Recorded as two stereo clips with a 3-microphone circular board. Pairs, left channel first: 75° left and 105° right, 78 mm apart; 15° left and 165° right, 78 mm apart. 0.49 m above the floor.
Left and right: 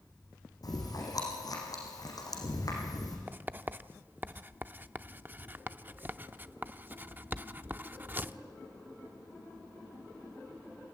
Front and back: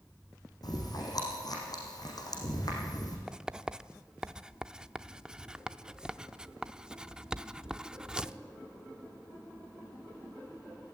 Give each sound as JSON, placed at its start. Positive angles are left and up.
{"t": 0.6, "sound": "chewing", "azimuth_deg": 45, "distance_m": 5.5}
{"t": 3.3, "sound": "writing", "azimuth_deg": -100, "distance_m": 0.5}